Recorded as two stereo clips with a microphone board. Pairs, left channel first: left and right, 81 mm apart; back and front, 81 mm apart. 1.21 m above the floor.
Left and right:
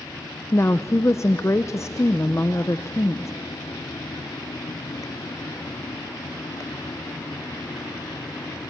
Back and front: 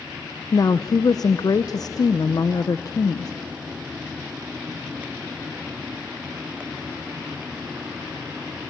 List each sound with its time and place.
0.5 s a woman speaking: 145° left, 0.5 m